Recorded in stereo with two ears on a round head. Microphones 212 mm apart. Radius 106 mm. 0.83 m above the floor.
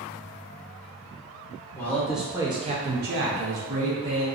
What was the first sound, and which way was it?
A man speaking, 10° left (ahead or behind).